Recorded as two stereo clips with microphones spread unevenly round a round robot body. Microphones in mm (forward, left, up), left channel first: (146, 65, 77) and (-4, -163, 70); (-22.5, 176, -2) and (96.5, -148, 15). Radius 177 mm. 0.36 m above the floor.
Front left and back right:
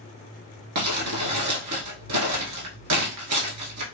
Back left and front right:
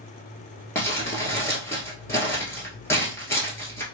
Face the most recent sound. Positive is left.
turn(degrees=-165)